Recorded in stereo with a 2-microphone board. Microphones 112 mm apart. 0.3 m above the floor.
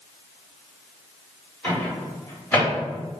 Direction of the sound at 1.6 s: 15° left (ahead or behind).